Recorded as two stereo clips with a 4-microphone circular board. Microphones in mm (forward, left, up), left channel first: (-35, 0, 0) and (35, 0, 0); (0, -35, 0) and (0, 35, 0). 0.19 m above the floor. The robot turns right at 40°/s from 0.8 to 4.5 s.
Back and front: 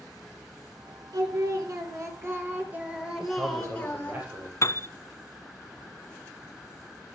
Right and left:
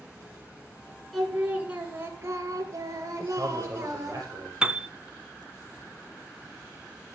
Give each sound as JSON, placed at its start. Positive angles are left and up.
{"t": 1.1, "sound": "singing", "azimuth_deg": 0, "distance_m": 3.0}
{"t": 3.2, "sound": "a man speaking", "azimuth_deg": 25, "distance_m": 7.0}
{"t": 4.6, "sound": "a piano", "azimuth_deg": 160, "distance_m": 0.6}